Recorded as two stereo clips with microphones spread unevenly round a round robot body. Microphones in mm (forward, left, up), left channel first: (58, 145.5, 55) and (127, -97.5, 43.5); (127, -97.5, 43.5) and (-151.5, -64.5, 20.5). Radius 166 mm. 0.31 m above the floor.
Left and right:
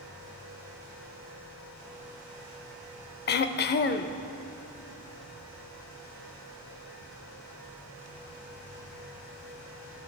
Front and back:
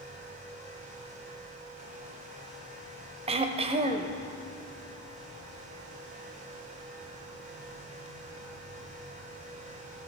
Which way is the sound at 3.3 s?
125° left.